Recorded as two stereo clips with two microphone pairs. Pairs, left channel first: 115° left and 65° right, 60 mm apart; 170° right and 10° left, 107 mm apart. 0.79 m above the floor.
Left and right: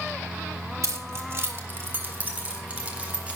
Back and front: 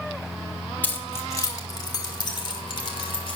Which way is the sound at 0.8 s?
95° right.